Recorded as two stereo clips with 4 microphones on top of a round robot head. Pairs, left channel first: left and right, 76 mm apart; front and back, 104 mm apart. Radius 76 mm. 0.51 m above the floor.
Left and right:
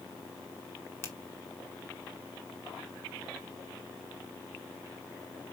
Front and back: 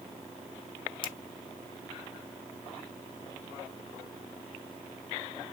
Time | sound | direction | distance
1.0 | a finger snap | 30° left | 1.5 m